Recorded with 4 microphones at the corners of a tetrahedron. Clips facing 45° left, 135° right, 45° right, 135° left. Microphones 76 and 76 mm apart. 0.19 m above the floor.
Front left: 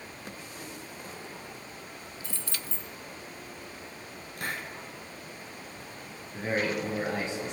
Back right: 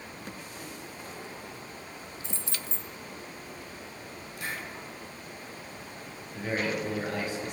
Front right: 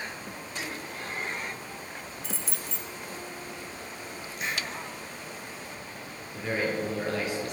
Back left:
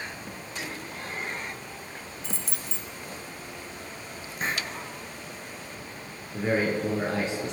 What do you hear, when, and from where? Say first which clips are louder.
2.2 s keys jangling: even, even; 130° right, 0.8 m
4.4 s a hiss: front left 2 dB, back left 3 dB; 85° left, 1.9 m
6.3 s a man speaking: front left 1 dB, back left 4 dB; 95° left, 1.8 m